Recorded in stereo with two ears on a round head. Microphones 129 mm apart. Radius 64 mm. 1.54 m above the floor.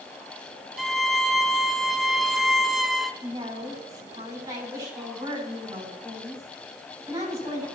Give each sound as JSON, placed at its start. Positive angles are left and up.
{"t": 0.8, "sound": "a violin", "side_deg": 0, "distance_m": 1.1}
{"t": 3.2, "sound": "a woman speaking", "side_deg": -25, "distance_m": 9.5}